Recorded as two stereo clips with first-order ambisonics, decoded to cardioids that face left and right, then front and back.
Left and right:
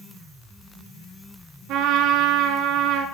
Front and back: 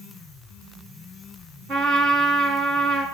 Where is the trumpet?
130° right, 5 m.